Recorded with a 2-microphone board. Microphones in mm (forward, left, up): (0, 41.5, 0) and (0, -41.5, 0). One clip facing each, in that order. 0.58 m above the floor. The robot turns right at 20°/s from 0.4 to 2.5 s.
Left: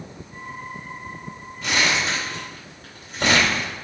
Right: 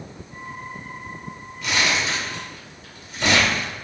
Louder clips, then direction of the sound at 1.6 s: Left 1 dB; 40° left (ahead or behind).